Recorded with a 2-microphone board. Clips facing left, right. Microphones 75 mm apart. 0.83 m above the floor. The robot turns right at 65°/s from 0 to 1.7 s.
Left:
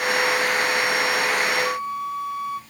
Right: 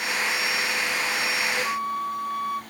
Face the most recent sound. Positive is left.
turn(degrees=30)  # may be behind; listen again after turning